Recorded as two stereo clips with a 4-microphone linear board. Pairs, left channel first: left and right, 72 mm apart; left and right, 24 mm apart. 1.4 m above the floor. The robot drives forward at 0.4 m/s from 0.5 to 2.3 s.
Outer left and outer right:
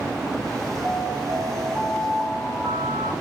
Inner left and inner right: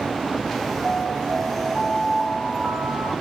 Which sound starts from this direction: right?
An alarm, at 0.8 s.